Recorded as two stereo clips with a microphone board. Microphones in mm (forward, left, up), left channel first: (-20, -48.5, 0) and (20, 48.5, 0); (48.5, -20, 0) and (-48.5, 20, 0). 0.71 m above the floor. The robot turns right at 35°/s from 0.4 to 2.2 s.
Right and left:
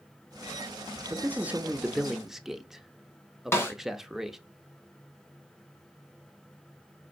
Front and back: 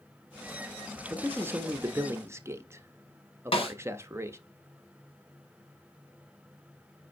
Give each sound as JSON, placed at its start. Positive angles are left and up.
{"t": 1.1, "sound": "a man speaking", "azimuth_deg": 110, "distance_m": 0.5}
{"t": 3.5, "sound": "a snare drum", "azimuth_deg": -45, "distance_m": 1.6}